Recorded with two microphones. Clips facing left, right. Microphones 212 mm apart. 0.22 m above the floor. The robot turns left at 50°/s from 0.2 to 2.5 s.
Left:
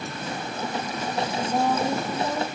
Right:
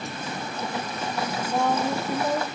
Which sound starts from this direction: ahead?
A woman speaking, at 1.5 s.